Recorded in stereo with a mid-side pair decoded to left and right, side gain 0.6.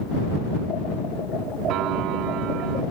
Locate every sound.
1.7 s a piano: 65° right